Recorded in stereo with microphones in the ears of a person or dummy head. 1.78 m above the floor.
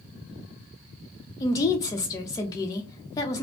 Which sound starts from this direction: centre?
A woman speaking, at 1.4 s.